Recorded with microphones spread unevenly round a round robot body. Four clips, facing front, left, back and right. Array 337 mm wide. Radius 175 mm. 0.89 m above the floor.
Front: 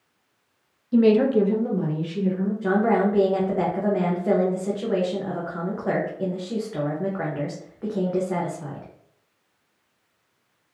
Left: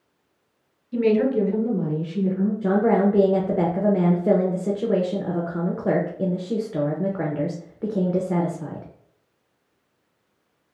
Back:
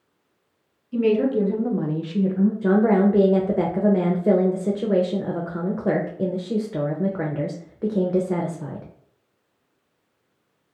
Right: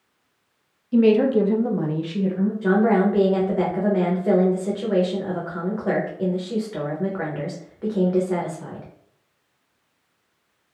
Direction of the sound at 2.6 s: 145° left.